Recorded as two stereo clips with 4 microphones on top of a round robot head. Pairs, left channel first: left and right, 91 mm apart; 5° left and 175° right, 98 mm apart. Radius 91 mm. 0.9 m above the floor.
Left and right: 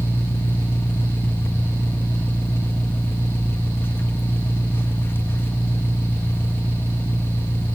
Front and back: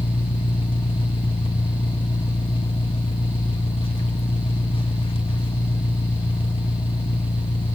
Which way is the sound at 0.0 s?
25° left.